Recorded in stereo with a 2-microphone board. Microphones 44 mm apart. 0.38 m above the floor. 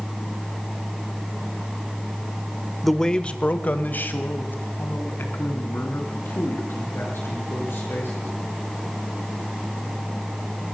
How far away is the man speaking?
About 1.0 m.